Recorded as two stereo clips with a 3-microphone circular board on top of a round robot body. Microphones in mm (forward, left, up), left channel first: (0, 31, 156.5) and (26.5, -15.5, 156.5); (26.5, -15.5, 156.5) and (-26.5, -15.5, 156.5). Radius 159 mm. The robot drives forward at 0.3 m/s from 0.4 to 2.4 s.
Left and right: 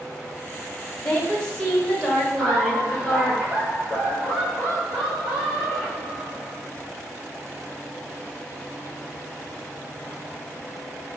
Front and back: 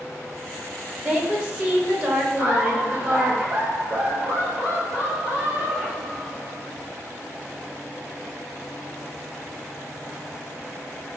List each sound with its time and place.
1.0 s a woman speaking: 170° left, 1.3 m; by 3.4 s 175° left, 1.6 m
2.4 s laughter: 170° right, 1.5 m